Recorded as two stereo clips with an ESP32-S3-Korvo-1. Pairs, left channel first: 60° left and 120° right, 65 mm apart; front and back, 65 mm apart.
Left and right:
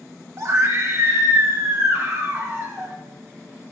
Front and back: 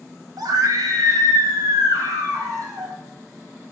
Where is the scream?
160° right, 1.4 m; by 3.0 s 170° right, 4 m.